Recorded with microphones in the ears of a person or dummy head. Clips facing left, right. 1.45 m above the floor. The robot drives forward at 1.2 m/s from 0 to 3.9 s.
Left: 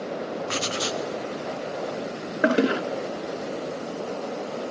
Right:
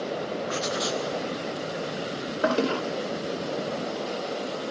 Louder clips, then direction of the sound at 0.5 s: Even; 45° left (ahead or behind).